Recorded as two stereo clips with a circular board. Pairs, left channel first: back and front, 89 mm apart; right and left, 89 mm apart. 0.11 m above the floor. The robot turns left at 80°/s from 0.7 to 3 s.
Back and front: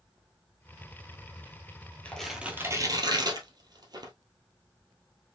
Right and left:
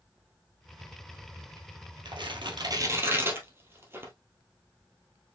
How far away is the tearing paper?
About 1.8 m.